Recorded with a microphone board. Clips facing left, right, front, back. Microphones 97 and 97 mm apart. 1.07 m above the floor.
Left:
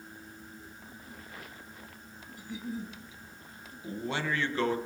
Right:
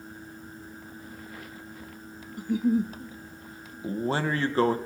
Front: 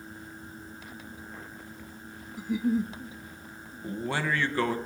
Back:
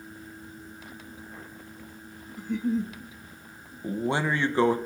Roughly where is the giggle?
Right.